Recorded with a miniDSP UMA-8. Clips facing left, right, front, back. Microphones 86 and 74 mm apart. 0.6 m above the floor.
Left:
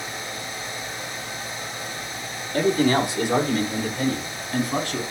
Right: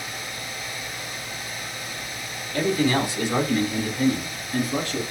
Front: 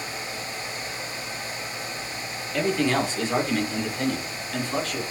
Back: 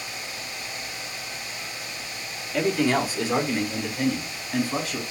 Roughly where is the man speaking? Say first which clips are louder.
Left 2 dB, back 1 dB; left.